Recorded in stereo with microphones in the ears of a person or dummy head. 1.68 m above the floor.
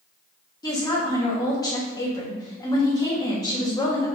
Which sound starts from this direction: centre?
A woman speaking, at 0.6 s.